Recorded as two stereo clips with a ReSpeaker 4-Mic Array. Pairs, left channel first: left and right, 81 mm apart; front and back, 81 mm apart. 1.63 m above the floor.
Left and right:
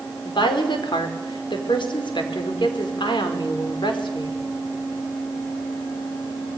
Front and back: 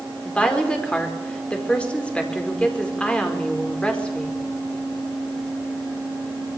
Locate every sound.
0.2 s a woman speaking: 75° left, 5 m